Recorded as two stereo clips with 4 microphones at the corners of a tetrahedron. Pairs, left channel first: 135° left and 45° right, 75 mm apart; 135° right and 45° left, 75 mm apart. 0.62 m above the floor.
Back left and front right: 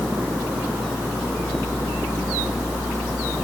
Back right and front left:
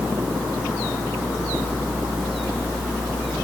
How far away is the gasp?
I don't hear a gasp.